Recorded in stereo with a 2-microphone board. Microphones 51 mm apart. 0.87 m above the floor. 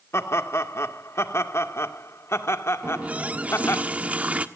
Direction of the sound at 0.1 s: 65° left (ahead or behind).